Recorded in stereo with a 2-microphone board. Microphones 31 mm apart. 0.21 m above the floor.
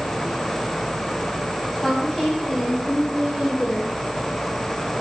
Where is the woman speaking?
5° left (ahead or behind), 1.1 m; by 3.9 s 40° left (ahead or behind), 1.4 m.